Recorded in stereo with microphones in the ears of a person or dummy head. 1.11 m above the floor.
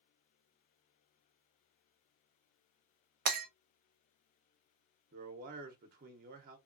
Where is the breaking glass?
55° right (ahead or behind), 0.6 m.